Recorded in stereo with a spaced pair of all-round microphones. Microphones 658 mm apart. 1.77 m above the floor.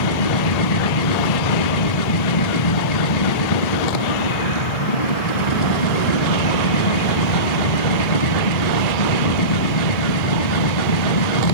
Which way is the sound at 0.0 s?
75° left (ahead or behind).